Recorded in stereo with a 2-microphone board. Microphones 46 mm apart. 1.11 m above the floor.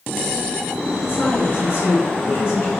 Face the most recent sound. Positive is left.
turn(degrees=60)  # may be behind; listen again after turning